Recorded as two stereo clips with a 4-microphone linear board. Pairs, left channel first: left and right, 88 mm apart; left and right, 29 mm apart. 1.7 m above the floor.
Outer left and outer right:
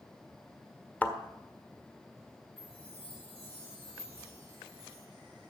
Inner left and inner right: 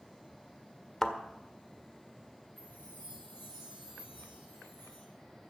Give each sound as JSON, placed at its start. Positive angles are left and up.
{"t": 1.0, "sound": "a thud", "side_deg": 15, "distance_m": 1.5}
{"t": 2.6, "sound": "a chime", "side_deg": 80, "distance_m": 6.5}